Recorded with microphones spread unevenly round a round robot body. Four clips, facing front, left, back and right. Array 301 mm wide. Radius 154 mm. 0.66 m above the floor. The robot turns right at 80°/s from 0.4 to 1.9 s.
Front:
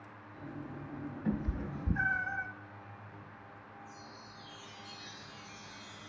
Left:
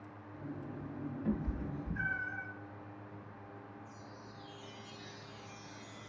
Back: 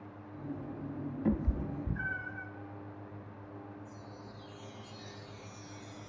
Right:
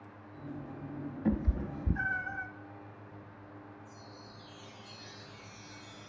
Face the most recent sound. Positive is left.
turn(degrees=-165)